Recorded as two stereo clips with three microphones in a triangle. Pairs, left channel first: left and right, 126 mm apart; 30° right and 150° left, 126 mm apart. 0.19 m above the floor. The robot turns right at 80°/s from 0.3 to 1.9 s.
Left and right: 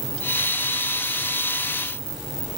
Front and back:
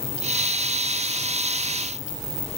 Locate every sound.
Only background noise.